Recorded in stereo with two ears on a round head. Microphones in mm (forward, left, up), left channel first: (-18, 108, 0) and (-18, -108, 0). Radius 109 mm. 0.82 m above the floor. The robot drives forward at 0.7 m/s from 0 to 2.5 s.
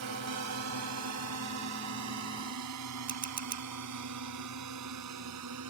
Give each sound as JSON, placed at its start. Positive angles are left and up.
{"t": 0.0, "sound": "a drone", "side_deg": -70}
{"t": 3.1, "sound": "a camera shutter", "side_deg": -40}